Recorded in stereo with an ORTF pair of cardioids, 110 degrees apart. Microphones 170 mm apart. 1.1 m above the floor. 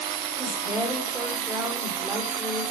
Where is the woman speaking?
15° right, 5 m.